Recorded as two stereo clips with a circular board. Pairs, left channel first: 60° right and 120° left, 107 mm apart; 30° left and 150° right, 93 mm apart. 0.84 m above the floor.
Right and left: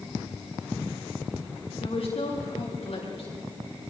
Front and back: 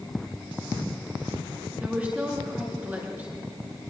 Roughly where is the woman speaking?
Right.